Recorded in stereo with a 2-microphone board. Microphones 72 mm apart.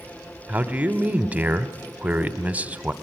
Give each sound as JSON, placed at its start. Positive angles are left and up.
{"t": 0.5, "sound": "a man speaking", "side_deg": -20, "distance_m": 1.0}